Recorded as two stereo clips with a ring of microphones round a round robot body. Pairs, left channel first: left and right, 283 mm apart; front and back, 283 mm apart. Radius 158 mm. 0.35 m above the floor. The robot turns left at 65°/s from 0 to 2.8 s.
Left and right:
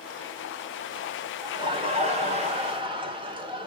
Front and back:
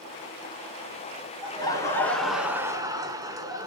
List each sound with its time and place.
1.4 s laughter: 35° right, 1.3 m; by 3.7 s 125° right, 1.3 m